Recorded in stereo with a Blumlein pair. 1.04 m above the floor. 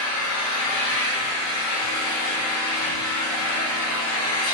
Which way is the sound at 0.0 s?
45° left.